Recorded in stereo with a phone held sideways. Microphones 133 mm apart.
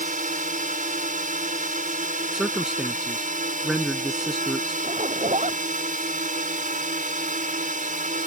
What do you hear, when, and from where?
0.0 s a drone: 70° right (ahead or behind)
2.3 s a man speaking: 5° right (ahead or behind)
4.8 s a zipper: 60° right (ahead or behind)